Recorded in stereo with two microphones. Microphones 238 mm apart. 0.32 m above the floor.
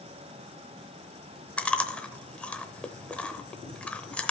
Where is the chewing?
5° left (ahead or behind), 0.7 m.